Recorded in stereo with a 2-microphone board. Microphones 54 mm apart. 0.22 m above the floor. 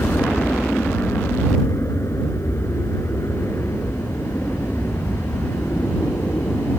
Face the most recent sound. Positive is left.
turn(degrees=65)  # may be behind; listen again after turning